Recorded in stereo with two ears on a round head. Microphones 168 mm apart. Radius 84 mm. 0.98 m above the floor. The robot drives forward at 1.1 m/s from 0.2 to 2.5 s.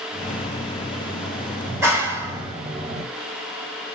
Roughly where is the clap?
Centre.